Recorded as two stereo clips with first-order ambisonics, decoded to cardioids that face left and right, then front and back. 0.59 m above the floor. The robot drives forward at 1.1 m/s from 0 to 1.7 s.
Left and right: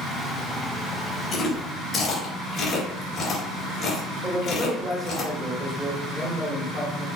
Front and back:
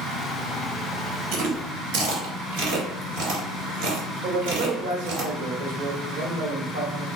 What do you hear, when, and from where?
1.3 s chewing: 155° left, 2.5 m; by 5.2 s 160° left, 3 m
4.2 s a man speaking: straight behind, 2 m